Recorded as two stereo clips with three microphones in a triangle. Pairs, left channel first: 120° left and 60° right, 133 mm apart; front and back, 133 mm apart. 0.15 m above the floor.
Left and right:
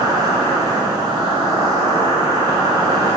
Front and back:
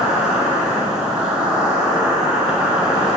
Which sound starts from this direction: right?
An insect, at 0.0 s.